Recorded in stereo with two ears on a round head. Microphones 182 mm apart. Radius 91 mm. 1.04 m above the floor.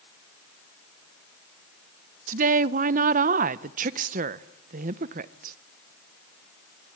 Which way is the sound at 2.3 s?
40° right (ahead or behind).